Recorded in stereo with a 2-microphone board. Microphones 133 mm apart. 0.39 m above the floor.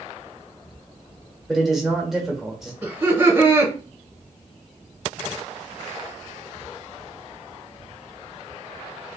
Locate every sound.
1.5 s a man speaking: centre (ahead or behind), 1.2 m
2.8 s laughter: 20° right (ahead or behind), 1.3 m